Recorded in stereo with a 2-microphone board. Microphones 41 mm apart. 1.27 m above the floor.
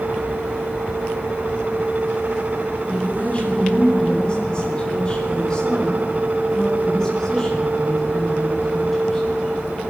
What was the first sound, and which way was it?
A woman speaking, 30° left (ahead or behind).